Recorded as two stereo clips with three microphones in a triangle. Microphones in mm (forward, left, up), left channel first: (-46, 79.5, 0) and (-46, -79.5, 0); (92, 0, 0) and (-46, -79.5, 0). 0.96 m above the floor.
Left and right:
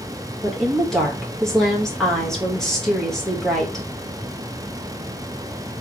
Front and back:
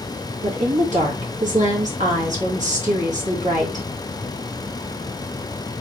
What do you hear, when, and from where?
0.4 s a woman speaking: 175° left, 1.5 m